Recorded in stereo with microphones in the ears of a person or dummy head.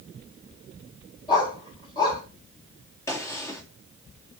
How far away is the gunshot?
About 2 m.